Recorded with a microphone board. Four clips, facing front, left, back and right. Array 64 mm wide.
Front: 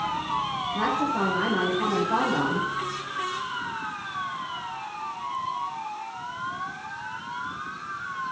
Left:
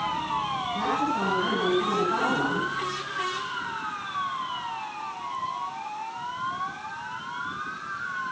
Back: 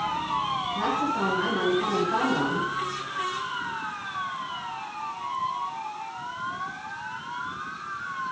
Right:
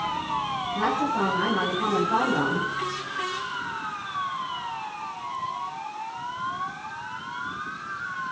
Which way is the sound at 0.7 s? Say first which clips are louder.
Right 2 dB, front 3 dB; 10° right.